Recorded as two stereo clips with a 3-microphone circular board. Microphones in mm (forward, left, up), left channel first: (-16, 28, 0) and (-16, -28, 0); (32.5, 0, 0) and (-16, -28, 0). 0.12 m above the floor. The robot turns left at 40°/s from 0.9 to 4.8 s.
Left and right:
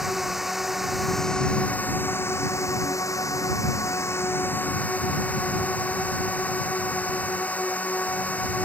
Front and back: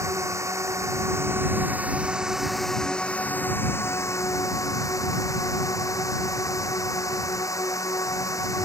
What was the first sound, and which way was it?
A drone, 175° right.